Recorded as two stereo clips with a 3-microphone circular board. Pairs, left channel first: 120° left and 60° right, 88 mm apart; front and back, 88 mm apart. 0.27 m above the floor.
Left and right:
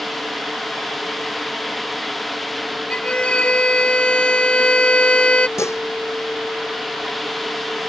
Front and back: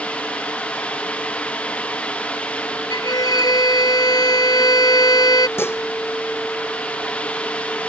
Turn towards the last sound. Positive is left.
turn(degrees=65)